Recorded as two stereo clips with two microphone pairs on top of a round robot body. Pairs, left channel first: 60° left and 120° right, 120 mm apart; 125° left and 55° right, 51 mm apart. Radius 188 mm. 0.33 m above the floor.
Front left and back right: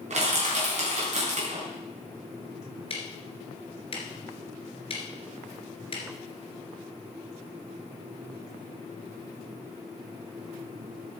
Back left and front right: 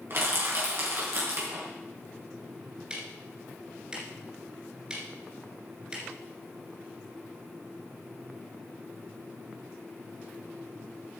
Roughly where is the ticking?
Ahead.